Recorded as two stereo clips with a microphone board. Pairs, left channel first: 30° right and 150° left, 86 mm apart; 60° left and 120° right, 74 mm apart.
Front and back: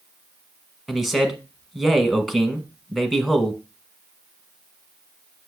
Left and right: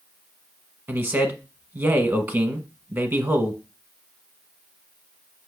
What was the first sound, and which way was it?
A man speaking, 120° right.